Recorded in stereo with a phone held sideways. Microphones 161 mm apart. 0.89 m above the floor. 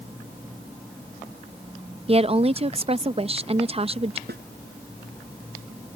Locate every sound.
2.1 s a woman speaking: 35° right (ahead or behind)
4.3 s a snare drum: 90° right